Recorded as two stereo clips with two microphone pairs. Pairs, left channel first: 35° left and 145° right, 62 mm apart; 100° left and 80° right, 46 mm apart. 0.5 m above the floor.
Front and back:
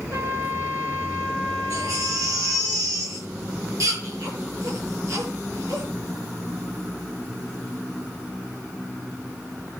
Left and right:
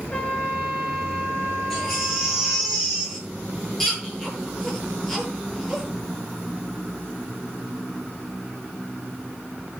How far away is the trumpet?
About 7.5 m.